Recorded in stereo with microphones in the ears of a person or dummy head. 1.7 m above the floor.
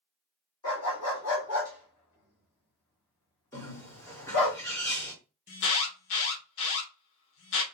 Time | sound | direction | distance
0.6 | a dog barking | 15° left (ahead or behind) | 1.1 m
3.5 | a bird | 15° left (ahead or behind) | 1.4 m
5.5 | an alarm | 70° left (ahead or behind) | 0.9 m